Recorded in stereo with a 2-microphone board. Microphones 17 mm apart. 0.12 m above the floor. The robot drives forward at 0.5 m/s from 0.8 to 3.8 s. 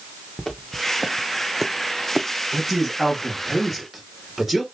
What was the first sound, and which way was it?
Footsteps, 25° left (ahead or behind).